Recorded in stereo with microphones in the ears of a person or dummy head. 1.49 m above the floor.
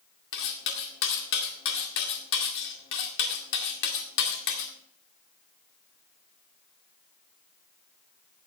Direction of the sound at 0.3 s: 60° left (ahead or behind).